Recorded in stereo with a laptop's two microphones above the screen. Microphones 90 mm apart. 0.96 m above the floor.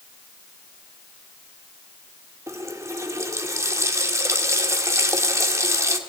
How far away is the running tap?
About 1.7 m.